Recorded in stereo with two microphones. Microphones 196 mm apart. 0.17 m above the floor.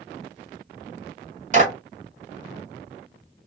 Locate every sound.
1.5 s a clap: 40° right (ahead or behind), 1.2 m